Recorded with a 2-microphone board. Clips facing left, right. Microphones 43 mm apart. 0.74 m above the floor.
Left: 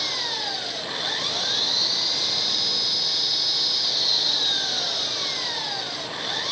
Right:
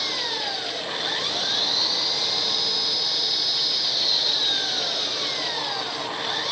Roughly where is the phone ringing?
No phone ringing in this recording.